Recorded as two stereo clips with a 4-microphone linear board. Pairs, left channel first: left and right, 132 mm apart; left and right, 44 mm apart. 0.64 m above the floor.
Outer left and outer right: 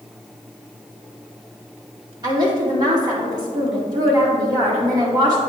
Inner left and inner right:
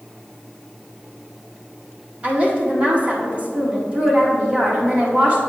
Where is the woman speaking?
30° right (ahead or behind), 1.8 m.